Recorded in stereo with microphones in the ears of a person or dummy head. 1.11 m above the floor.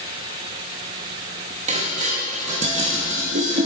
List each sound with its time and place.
1.7 s dishes clattering: 35° right (ahead or behind), 1.0 m